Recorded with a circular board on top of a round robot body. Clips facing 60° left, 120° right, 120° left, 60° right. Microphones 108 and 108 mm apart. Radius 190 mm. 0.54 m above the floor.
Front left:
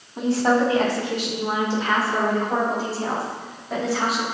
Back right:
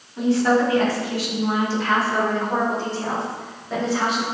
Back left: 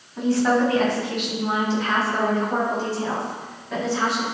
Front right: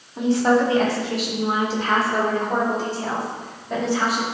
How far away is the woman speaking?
About 2.5 m.